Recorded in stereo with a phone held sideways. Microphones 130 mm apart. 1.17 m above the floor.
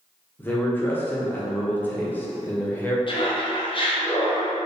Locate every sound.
0.4 s a man speaking: 15° left (ahead or behind), 0.8 m
3.1 s laughter: 40° left (ahead or behind), 0.9 m